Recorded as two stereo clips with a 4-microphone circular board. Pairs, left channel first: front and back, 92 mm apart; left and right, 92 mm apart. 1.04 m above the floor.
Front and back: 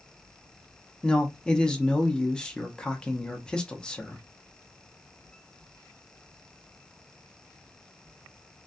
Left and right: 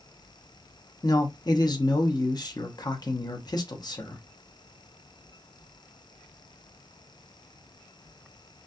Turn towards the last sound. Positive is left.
turn(degrees=80)